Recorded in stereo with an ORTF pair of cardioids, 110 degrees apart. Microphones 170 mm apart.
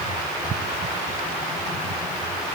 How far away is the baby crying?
I don't hear a baby crying.